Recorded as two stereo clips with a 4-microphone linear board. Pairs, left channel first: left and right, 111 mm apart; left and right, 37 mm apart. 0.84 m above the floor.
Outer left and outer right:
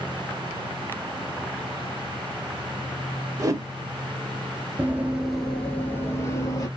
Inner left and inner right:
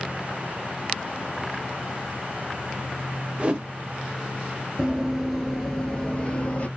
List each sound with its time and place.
3.4 s a whoosh: 35° right (ahead or behind), 0.6 m
4.8 s running footsteps: 20° right (ahead or behind), 0.8 m; by 6.7 s 35° left (ahead or behind), 1.0 m